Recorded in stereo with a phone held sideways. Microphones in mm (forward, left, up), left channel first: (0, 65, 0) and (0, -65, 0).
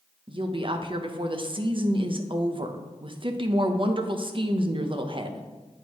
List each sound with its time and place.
0.3 s a woman speaking: 40° right (ahead or behind), 0.7 m